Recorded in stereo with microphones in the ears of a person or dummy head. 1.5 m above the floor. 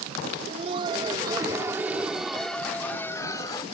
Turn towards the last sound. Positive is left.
turn(degrees=25)  # may be behind; listen again after turning